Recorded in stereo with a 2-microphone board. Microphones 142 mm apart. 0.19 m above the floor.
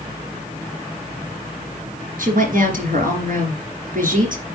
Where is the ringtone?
I don't hear a ringtone.